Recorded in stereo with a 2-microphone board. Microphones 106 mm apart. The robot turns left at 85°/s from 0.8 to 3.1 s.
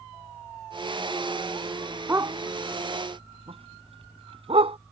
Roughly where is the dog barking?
Right.